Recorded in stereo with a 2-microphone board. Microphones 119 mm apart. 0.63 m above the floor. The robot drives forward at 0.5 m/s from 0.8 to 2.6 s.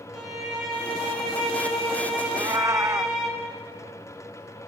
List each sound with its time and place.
0.1 s a violin: 5° right (ahead or behind), 5.5 m
2.3 s a cat meowing: 35° right (ahead or behind), 0.5 m; by 3.2 s 25° right (ahead or behind), 0.6 m